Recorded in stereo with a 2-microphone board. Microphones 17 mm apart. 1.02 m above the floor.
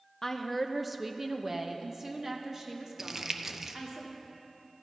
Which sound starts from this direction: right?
Crumpling, at 3.0 s.